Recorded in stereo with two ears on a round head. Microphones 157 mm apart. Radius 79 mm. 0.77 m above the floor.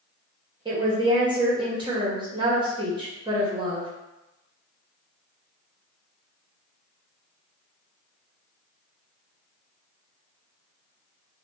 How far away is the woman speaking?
About 0.9 m.